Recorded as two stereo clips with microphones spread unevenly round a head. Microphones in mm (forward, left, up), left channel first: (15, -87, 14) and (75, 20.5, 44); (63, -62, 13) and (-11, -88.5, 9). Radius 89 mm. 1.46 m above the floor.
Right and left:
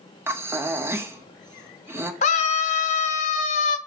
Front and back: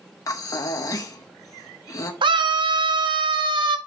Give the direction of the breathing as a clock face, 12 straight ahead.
12 o'clock.